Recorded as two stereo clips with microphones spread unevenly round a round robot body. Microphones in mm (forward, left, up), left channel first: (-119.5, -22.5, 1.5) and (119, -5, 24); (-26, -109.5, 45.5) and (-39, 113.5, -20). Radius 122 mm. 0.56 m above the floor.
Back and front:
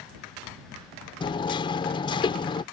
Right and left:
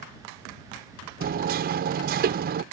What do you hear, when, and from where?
1.2 s hammering: 120° left